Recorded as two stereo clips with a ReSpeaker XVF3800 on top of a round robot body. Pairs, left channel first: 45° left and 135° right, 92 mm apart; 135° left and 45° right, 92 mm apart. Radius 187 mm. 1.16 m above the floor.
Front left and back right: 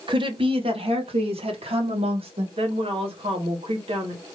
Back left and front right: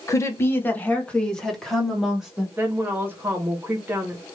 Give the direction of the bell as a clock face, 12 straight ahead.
I don't hear a bell.